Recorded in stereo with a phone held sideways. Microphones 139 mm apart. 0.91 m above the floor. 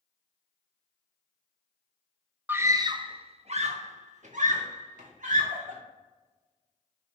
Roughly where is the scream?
Centre.